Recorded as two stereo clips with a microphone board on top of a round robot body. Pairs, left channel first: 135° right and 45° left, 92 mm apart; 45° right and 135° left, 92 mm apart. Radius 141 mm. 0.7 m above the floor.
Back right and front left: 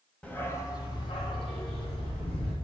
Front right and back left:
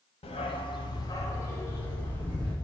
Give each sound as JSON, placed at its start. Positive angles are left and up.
{"t": 0.2, "sound": "a dog barking", "azimuth_deg": -55, "distance_m": 1.4}